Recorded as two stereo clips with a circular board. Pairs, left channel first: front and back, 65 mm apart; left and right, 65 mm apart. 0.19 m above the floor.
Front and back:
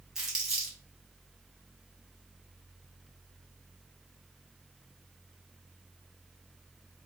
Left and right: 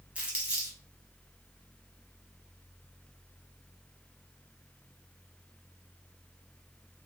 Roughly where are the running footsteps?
I don't hear running footsteps.